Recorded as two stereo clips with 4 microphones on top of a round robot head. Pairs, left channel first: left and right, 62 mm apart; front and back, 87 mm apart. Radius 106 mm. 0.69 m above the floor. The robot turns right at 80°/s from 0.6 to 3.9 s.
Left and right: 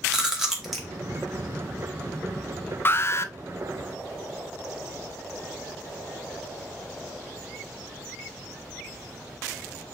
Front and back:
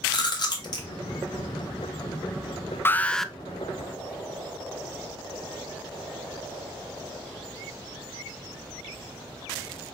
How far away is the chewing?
About 1.7 m.